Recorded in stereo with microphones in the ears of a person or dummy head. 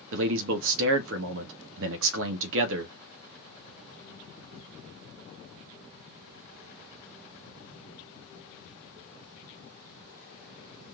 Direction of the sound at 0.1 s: 65° right (ahead or behind).